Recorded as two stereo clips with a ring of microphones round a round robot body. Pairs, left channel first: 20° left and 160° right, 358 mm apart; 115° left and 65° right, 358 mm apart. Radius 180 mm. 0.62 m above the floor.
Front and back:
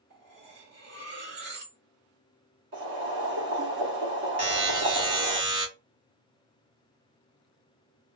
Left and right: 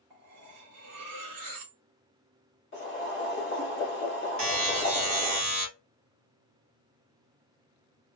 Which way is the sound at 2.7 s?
160° left.